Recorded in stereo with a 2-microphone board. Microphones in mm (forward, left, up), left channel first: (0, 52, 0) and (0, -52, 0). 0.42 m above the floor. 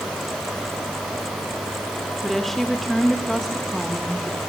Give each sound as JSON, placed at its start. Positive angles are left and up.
{"t": 2.2, "sound": "a woman speaking", "side_deg": 5, "distance_m": 1.0}